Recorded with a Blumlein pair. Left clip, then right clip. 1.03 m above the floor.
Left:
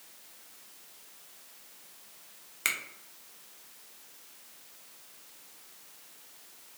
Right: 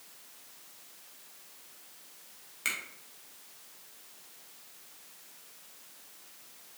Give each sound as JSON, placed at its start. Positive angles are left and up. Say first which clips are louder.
{"t": 2.6, "sound": "a finger snap", "louder": "left 2 dB", "azimuth_deg": 20, "distance_m": 0.7}